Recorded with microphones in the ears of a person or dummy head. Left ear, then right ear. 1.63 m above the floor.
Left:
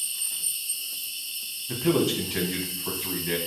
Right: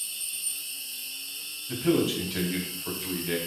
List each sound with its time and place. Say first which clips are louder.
0.0 s an insect: left 3 dB; 30° right (ahead or behind), 1.6 m
1.7 s a man speaking: left 1 dB; 5° left (ahead or behind), 0.7 m